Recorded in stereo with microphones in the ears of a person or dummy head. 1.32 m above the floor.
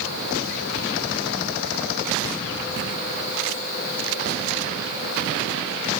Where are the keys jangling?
No keys jangling in this recording.